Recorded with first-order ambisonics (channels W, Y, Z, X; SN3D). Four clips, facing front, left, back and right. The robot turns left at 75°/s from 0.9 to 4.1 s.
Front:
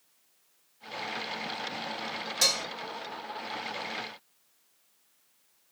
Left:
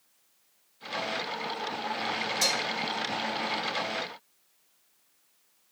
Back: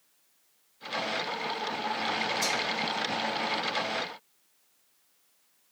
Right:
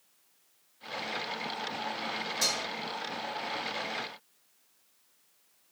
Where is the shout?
I don't hear a shout.